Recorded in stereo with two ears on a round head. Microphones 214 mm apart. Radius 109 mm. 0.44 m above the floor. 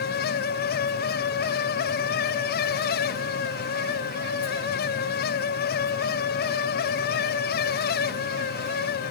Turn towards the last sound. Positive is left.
No sound to turn to.